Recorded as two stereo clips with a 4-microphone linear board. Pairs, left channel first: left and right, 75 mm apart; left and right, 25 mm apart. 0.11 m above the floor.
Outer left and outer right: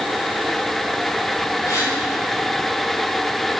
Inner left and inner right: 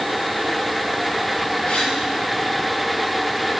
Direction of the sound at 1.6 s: 40° left (ahead or behind).